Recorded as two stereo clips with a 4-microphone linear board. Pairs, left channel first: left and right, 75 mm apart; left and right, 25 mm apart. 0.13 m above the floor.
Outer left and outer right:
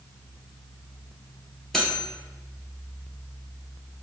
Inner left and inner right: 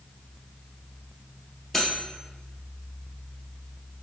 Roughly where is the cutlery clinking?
Centre.